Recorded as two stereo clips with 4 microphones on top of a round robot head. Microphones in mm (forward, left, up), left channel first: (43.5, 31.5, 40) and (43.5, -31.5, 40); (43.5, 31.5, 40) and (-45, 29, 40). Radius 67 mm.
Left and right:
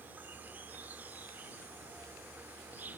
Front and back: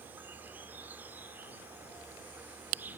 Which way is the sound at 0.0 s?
125° right.